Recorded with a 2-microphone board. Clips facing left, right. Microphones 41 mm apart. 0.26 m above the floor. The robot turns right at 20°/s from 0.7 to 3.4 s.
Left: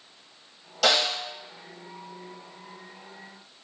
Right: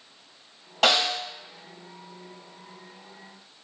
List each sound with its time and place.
0.8 s a snare drum: 35° right (ahead or behind), 1.7 m; by 1.2 s 25° right (ahead or behind), 1.7 m